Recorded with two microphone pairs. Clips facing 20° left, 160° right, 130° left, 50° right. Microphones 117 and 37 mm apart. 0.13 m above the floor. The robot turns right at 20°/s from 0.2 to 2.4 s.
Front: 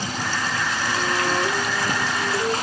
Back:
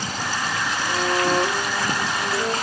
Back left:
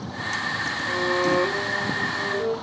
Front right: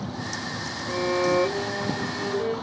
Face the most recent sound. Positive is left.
turn(degrees=-115)